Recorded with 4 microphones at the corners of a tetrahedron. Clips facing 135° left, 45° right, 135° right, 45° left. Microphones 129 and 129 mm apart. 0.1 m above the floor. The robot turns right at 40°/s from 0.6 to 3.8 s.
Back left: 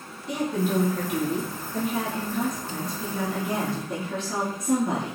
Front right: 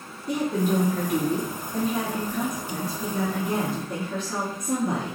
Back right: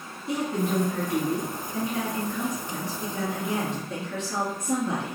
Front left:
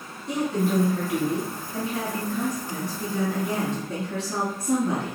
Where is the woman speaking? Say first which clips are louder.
Front right 2 dB, front left 2 dB; 50° right, 1.7 m; by 5.2 s 80° left, 1.7 m.